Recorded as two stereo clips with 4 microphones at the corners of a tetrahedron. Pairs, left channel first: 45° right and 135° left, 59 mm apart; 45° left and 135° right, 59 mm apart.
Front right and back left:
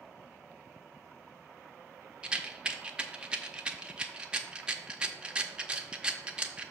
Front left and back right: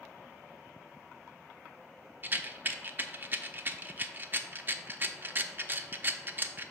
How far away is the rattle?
About 0.6 m.